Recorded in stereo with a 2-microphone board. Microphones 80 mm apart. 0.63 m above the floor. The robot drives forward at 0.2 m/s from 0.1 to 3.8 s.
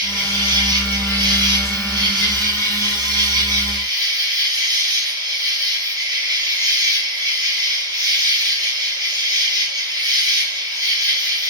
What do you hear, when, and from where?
0.0 s an insect: 60° right (ahead or behind), 1.3 m; by 11.5 s 55° right (ahead or behind), 1.4 m